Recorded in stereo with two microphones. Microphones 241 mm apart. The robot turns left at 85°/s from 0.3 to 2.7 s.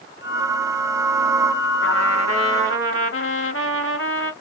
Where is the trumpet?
130° left, 2 m; by 4.3 s 55° left, 2 m.